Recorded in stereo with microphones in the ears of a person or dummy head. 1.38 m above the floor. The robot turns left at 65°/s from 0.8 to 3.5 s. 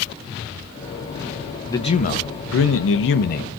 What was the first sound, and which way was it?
A man speaking, 160° left.